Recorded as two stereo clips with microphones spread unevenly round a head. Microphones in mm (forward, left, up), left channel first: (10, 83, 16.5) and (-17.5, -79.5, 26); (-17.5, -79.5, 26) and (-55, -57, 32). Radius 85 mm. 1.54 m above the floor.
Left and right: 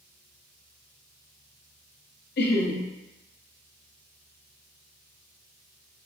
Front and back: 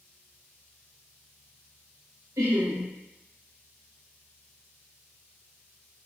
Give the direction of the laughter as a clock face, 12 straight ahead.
8 o'clock.